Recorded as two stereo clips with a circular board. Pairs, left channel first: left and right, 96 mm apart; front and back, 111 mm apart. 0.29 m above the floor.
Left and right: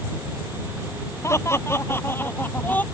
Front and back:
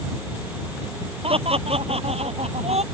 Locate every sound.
1.2 s laughter: 150° left; by 2.8 s 165° left